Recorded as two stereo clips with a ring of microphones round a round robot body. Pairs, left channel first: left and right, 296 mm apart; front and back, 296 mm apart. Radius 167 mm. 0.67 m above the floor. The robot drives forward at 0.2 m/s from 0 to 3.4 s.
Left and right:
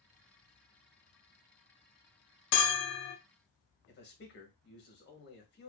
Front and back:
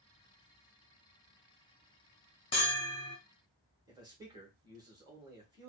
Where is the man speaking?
110° left, 1.1 m.